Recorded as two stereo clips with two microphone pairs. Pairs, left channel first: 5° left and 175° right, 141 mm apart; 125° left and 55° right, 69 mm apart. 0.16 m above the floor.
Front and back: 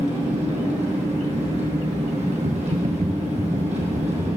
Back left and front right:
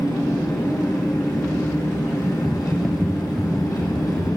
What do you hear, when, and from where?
0.0 s an engine running: 145° left, 3 m
2.4 s typing on a keyboard: 155° right, 1.0 m